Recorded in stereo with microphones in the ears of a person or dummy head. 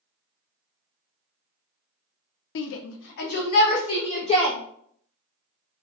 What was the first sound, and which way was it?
A shout, 75° left (ahead or behind).